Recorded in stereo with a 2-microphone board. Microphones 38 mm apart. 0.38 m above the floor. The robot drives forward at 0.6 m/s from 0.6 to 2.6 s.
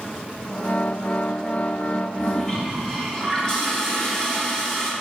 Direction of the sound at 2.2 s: 20° left (ahead or behind).